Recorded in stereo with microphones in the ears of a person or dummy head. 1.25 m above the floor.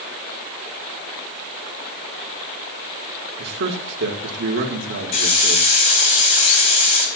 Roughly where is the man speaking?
Right.